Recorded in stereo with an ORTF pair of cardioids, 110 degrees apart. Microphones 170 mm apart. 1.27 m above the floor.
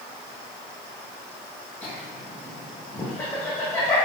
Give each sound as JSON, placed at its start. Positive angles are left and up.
{"t": 1.8, "sound": "laughter", "azimuth_deg": 15, "distance_m": 1.2}